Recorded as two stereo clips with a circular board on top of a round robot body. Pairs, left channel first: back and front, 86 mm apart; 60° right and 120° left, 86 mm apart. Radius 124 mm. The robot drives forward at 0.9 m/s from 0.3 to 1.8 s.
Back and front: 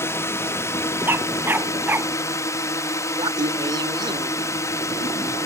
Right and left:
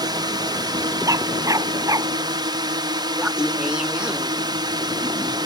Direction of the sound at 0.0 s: 130° left.